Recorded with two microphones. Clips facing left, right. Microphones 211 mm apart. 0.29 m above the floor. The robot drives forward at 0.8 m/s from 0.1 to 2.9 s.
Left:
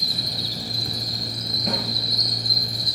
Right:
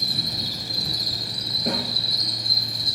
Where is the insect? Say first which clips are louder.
Right 1 dB; 50° right (ahead or behind), 2.0 m; by 3.0 s 25° right (ahead or behind), 4 m.